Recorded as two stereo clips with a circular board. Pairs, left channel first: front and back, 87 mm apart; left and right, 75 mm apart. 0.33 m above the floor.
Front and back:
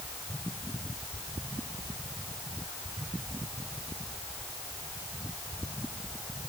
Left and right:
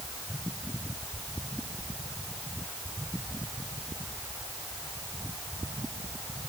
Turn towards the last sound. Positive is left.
No sound to turn to.